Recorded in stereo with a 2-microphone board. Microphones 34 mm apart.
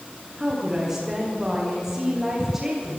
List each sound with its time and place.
0.4 s a woman speaking: 20° right (ahead or behind), 10 m